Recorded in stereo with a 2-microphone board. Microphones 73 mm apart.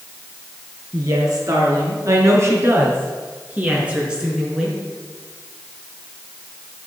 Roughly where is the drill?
I don't hear a drill.